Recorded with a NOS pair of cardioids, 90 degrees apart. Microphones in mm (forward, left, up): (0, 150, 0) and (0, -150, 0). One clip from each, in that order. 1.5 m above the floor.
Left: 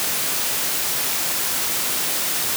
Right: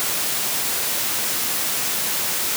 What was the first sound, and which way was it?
Only background noise.